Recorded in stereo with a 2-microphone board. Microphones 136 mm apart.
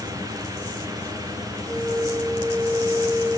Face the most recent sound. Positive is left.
turn(degrees=35)  # may be behind; listen again after turning